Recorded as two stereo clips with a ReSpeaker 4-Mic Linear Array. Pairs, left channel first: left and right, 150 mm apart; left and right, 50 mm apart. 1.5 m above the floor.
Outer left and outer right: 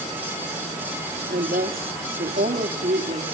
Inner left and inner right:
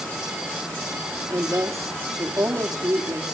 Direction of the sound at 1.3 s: 85° right.